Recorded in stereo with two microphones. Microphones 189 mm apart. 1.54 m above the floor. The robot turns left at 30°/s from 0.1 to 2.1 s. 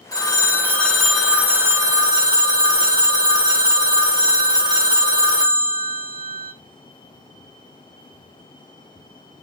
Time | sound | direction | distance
0.1 | a phone ringing | 30° left | 0.6 m